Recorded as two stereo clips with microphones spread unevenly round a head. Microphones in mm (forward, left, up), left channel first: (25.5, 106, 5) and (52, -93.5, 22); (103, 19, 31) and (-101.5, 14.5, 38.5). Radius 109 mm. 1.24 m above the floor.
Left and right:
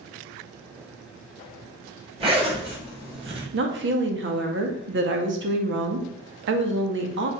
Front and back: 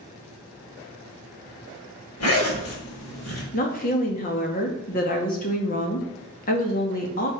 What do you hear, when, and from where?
2.2 s a zipper: 20° right, 5.5 m
3.5 s a woman speaking: 50° right, 2 m